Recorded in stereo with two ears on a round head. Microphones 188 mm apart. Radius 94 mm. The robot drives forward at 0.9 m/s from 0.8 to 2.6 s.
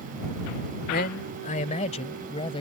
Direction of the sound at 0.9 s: 50° left (ahead or behind).